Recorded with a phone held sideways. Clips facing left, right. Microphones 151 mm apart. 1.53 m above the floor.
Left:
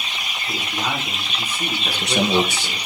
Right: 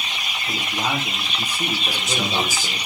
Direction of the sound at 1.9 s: 65° left (ahead or behind).